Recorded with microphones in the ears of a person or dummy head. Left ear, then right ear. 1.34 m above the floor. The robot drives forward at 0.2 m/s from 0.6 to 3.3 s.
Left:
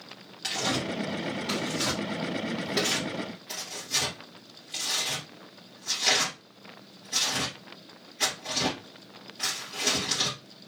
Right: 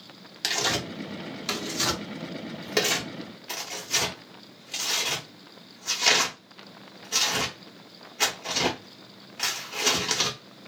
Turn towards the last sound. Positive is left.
turn(degrees=-45)  # may be behind; listen again after turning